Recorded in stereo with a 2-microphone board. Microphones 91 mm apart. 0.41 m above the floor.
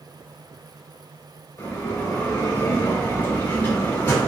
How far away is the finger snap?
I don't hear a finger snap.